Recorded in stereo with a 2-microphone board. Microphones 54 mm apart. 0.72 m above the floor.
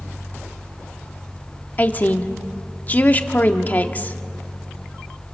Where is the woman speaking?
35° left (ahead or behind), 1.3 m.